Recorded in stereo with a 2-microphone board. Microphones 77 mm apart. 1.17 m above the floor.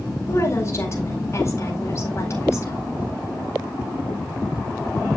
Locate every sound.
0.3 s a woman speaking: 35° left (ahead or behind), 4 m